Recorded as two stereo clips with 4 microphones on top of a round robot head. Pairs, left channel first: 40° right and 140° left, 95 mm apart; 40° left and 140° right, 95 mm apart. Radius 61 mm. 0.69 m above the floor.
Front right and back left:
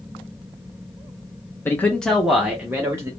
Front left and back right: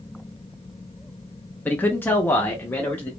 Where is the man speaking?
10° right, 0.8 m; by 3.1 s 100° left, 1.0 m.